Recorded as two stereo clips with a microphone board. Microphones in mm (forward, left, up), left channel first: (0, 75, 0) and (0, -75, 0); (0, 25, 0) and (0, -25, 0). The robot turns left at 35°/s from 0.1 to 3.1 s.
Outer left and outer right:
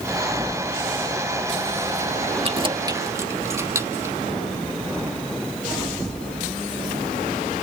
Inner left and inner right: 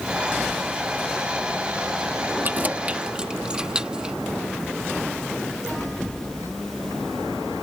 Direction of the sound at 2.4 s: 40° right (ahead or behind).